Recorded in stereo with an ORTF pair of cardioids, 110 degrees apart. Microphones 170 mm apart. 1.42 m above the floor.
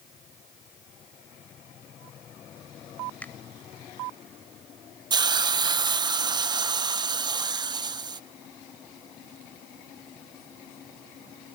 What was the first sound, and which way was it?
A finger snap, 10° left.